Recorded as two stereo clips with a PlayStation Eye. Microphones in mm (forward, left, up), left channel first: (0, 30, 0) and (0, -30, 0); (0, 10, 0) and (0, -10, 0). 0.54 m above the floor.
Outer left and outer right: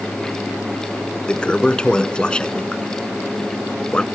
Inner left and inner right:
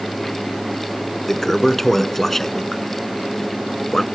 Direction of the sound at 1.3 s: 15° left (ahead or behind).